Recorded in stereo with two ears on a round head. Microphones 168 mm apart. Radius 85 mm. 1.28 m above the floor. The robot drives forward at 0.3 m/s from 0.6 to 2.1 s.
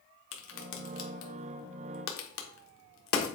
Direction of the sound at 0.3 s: 70° left (ahead or behind).